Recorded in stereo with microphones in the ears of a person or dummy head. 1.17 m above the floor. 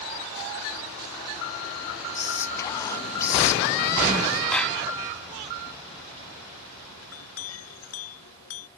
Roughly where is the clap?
Centre.